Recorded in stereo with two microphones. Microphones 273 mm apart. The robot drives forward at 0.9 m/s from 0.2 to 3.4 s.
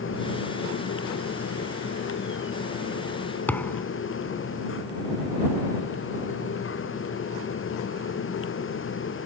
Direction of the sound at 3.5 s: 5° left (ahead or behind).